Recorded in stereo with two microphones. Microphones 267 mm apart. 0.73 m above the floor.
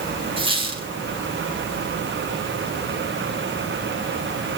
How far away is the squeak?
About 4.5 m.